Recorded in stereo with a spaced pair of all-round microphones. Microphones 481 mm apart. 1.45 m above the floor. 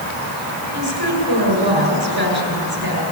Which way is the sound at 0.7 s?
50° right (ahead or behind).